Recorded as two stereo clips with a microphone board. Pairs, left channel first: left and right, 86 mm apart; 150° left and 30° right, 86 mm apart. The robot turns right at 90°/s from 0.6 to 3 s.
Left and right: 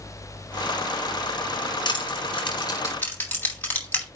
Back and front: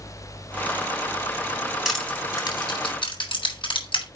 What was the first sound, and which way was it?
Crushing, 55° left.